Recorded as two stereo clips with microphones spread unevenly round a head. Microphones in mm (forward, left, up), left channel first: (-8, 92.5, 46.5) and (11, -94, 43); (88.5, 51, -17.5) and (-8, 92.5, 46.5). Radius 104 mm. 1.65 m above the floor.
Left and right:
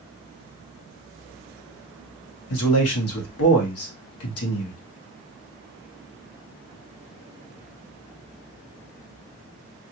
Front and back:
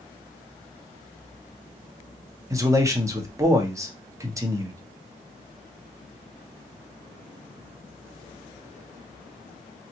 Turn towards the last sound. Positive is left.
turn(degrees=90)